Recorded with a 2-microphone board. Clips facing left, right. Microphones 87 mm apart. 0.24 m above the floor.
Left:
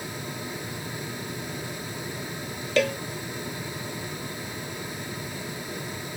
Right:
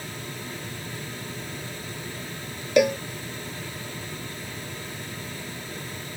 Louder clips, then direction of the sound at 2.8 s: Right 4 dB; 15° right (ahead or behind).